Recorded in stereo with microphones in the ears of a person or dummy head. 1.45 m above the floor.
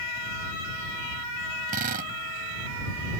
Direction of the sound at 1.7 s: 45° right (ahead or behind).